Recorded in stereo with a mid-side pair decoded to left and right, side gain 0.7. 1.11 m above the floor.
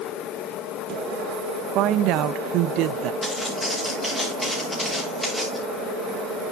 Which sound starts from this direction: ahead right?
A woman speaking, at 1.8 s.